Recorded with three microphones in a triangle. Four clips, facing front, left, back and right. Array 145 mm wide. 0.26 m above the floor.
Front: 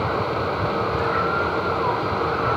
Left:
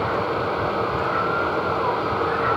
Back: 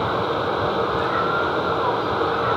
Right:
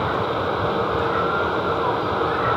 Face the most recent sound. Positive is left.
No sound to turn to.